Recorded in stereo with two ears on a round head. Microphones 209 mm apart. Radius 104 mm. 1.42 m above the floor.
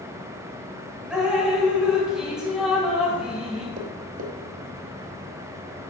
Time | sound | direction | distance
1.1 | dripping | 5° right (ahead or behind) | 2 m
3.8 | tapping | 35° right (ahead or behind) | 0.8 m